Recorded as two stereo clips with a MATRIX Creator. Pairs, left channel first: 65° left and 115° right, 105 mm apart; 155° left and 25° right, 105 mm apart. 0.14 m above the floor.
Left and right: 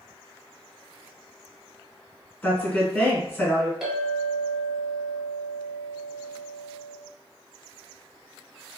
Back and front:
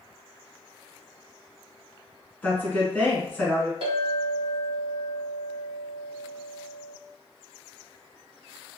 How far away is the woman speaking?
About 1.2 m.